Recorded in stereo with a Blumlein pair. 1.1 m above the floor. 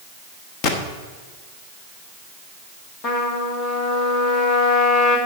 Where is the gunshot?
40° left, 1.3 m.